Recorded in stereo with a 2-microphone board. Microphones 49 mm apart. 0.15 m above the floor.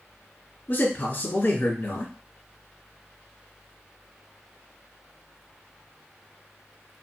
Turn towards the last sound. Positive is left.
turn(degrees=45)  # may be behind; listen again after turning